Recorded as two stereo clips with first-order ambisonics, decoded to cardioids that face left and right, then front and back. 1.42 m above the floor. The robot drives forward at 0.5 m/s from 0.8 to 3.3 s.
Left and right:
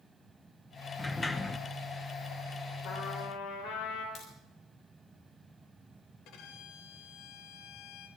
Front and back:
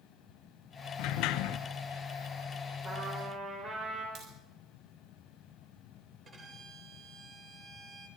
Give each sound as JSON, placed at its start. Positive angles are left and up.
{"t": 1.0, "sound": "a sliding door", "azimuth_deg": 10, "distance_m": 0.9}
{"t": 2.8, "sound": "a trumpet", "azimuth_deg": 115, "distance_m": 5.5}
{"t": 4.2, "sound": "a crack", "azimuth_deg": 135, "distance_m": 7.0}
{"t": 6.2, "sound": "a violin", "azimuth_deg": 115, "distance_m": 3.5}